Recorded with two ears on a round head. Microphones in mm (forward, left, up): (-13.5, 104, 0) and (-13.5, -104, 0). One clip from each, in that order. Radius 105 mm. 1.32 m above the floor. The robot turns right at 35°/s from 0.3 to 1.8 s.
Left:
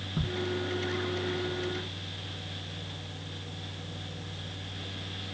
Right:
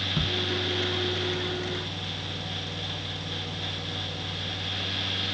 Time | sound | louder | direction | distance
0.2 | ticking | right 4 dB | 45° right (ahead or behind) | 0.6 m